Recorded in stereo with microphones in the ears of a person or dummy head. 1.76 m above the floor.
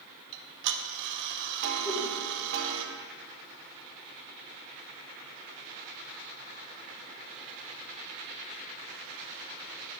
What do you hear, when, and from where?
0.3 s ticking: 65° right (ahead or behind), 1.2 m
1.9 s a whoosh: 10° left (ahead or behind), 2 m